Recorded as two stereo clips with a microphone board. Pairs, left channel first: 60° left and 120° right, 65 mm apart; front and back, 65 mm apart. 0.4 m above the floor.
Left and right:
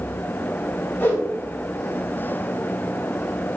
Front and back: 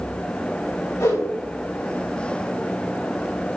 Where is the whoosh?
15° left, 2.5 m.